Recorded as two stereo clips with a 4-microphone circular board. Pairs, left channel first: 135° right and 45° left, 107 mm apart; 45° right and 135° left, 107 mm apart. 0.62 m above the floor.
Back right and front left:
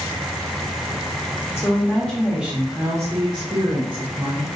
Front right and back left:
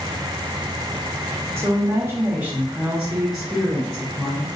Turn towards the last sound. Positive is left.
turn(degrees=40)